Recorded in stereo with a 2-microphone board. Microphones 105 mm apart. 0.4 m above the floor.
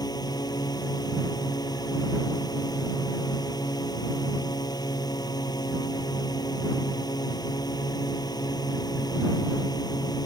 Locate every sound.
0.0 s a drone: 40° left (ahead or behind)